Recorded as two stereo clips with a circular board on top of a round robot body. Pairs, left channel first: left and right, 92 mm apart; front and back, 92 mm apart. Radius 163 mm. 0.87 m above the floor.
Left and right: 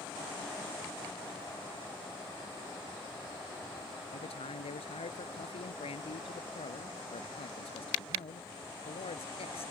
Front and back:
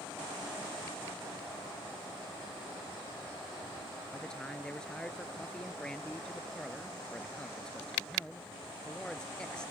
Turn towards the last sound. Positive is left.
turn(degrees=80)